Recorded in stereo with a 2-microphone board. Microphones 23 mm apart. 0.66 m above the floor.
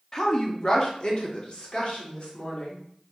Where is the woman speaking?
20° left (ahead or behind), 0.9 m; by 2.8 s 50° left (ahead or behind), 2 m.